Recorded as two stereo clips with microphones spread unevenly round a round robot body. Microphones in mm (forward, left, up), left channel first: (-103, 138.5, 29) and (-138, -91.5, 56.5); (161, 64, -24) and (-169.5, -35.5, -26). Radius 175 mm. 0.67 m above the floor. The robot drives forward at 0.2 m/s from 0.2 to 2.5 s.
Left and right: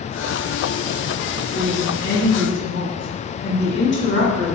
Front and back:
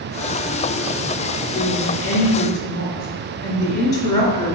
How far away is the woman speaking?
About 1.5 m.